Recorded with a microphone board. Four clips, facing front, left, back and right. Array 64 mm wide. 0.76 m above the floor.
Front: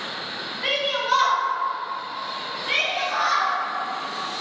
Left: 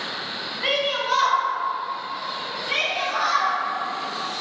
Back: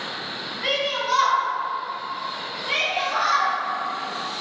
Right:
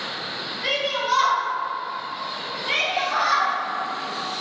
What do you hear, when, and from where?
0.6 s a shout: 75° left, 1.3 m; by 3.5 s 65° right, 2.5 m